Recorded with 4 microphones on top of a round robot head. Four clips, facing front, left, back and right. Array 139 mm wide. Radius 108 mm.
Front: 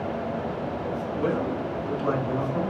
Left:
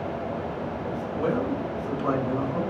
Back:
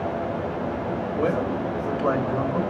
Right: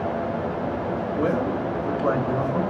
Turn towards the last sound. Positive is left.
turn(degrees=-130)